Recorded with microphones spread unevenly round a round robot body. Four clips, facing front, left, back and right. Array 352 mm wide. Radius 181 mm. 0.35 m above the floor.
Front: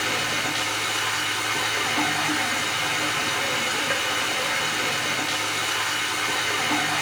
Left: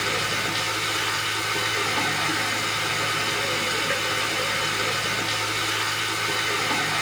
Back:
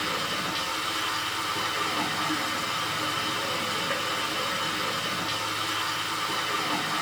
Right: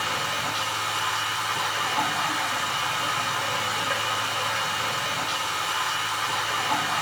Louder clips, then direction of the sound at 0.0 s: Left 1 dB, front 3 dB; 45° left.